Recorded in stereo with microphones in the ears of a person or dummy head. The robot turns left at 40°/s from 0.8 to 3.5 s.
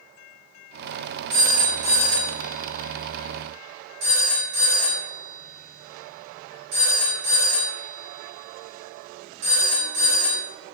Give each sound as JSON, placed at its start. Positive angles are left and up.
{"t": 1.3, "sound": "a phone ringing", "side_deg": -20, "distance_m": 1.8}